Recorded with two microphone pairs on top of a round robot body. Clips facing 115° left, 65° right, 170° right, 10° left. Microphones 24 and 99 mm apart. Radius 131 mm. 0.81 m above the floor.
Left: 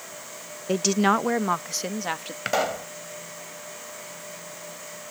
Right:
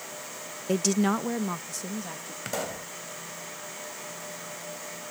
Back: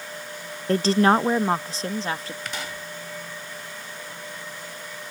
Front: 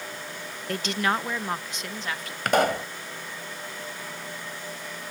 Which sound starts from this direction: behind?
A woman speaking, at 0.7 s.